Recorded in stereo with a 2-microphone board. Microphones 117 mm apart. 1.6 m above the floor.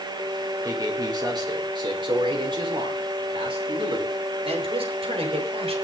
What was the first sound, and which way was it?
A man speaking, 35° right (ahead or behind).